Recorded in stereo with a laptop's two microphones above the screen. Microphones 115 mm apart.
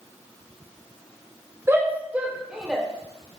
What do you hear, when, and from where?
1.7 s a shout: 20° right (ahead or behind), 3 m; by 2.9 s centre (ahead or behind), 3 m